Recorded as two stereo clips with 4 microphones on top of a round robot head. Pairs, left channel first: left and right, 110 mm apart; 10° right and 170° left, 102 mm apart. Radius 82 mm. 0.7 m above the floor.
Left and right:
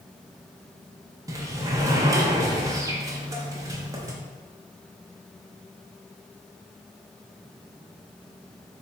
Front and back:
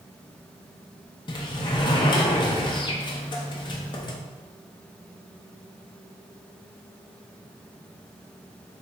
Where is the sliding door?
35° right, 0.6 m.